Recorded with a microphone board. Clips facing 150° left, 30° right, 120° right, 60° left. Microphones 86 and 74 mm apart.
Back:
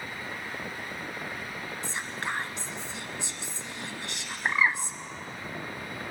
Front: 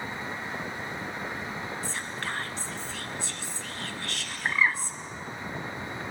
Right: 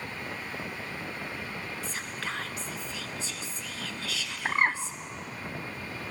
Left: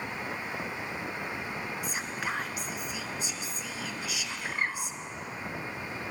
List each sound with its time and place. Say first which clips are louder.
1.8 s whispering: even, left 3 dB; 110° left, 1.1 m
4.5 s a bird: even, right 7 dB; 140° right, 0.7 m